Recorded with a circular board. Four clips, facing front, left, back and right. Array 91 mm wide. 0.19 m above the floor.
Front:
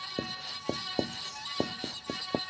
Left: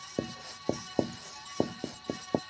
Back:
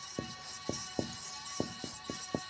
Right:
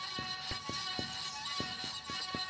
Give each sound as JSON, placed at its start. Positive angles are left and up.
{"t": 0.2, "sound": "writing", "azimuth_deg": 65}